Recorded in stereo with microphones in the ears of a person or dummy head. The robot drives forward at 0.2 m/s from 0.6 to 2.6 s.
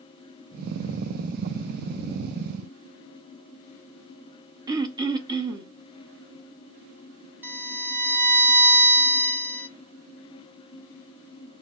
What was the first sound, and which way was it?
Throat clearing, 20° right (ahead or behind).